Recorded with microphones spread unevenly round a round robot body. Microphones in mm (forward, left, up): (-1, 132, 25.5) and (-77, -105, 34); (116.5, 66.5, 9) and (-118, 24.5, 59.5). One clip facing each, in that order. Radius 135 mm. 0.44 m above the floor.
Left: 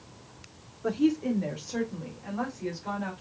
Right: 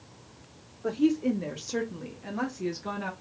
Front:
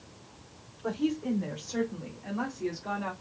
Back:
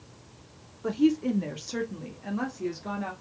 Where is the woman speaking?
150° left, 1.0 m; by 3.1 s 100° right, 1.5 m.